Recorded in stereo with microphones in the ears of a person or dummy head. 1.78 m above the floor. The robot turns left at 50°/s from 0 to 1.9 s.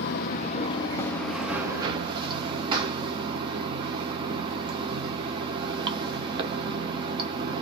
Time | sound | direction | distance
0.0 | running water | 60° left | 0.8 m